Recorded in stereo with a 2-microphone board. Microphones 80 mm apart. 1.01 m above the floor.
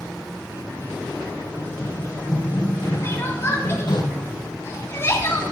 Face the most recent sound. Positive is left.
turn(degrees=35)  # may be behind; listen again after turning